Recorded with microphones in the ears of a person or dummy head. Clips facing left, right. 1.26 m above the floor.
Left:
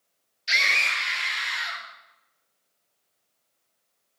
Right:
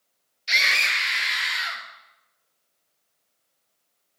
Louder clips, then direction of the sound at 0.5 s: Right 1 dB; 10° left (ahead or behind).